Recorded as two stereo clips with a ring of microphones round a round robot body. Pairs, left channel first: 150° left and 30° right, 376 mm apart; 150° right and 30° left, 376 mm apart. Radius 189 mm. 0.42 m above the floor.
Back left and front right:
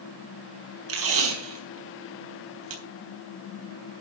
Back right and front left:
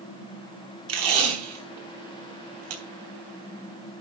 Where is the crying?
I don't hear crying.